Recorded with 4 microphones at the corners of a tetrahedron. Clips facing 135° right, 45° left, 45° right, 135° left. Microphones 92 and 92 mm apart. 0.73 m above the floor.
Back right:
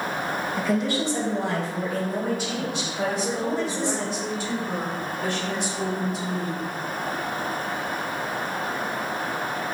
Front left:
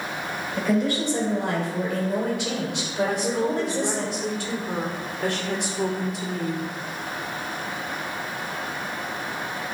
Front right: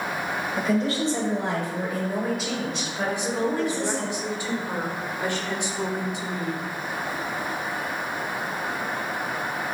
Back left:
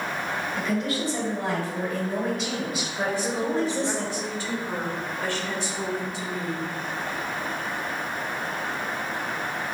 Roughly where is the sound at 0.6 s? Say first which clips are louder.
Front left 3 dB, front right 5 dB; ahead.